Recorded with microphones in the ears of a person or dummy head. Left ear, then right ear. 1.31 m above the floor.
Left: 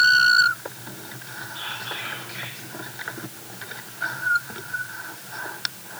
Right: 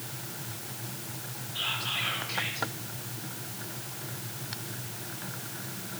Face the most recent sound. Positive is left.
turn(degrees=-5)  # may be behind; listen again after turning